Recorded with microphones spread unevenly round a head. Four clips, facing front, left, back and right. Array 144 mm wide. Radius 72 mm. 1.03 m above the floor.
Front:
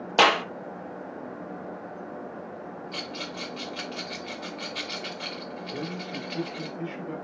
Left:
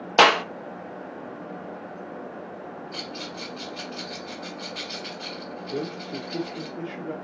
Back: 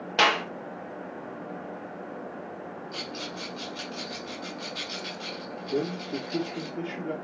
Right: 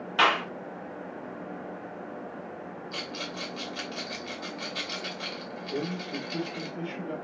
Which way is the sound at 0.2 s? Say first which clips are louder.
Left 7 dB, front 3 dB; 75° left.